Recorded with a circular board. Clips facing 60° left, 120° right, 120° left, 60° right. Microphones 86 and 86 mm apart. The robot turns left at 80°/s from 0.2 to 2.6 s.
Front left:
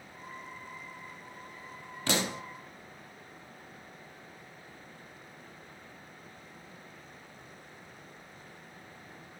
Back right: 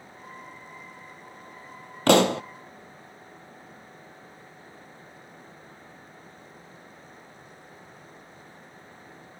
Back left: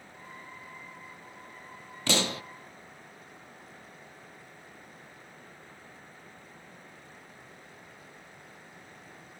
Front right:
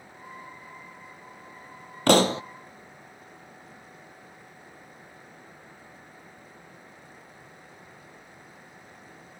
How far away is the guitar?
No guitar in this recording.